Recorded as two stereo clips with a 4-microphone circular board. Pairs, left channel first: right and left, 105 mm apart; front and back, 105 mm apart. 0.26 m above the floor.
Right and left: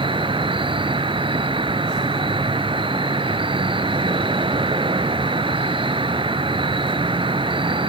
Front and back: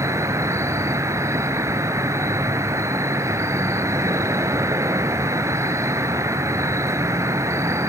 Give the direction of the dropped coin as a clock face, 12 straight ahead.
I don't hear a dropped coin.